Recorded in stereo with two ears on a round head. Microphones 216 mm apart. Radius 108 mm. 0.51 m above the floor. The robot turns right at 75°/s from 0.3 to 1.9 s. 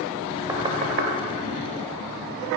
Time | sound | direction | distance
0.5 | knocking | 15° right (ahead or behind) | 1.6 m